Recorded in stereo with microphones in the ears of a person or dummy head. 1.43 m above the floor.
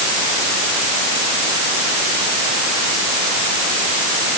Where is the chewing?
No chewing in this recording.